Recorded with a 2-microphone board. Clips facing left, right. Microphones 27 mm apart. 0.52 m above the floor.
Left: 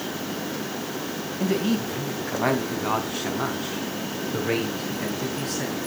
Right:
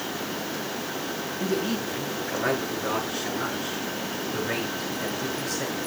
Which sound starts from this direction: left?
A man speaking, at 1.4 s.